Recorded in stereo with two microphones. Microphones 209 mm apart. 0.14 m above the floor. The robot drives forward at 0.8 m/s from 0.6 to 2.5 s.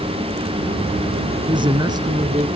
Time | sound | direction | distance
1.5 | a man speaking | 25° right (ahead or behind) | 1.1 m